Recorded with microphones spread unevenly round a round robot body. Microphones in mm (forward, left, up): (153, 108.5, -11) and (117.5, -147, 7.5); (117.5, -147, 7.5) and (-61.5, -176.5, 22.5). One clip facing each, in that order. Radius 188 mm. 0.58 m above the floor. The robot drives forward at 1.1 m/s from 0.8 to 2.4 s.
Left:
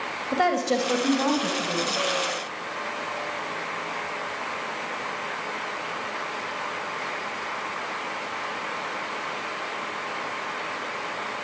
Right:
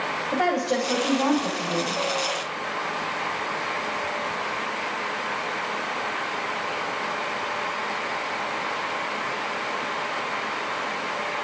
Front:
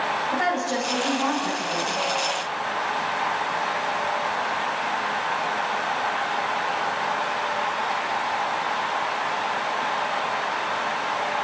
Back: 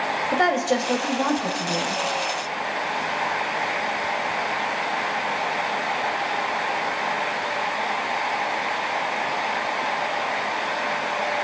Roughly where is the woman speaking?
Behind left.